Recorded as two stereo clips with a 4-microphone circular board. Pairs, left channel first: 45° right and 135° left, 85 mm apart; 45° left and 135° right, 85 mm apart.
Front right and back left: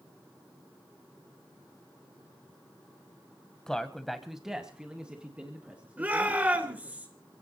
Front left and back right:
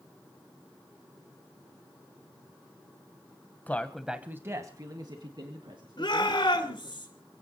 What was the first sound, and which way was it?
A man speaking, 25° left.